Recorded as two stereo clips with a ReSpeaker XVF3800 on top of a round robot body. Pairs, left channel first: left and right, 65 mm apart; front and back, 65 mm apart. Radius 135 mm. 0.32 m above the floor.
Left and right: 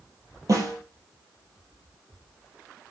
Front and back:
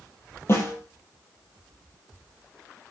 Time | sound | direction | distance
0.5 | a snare drum | 50° right | 5.5 m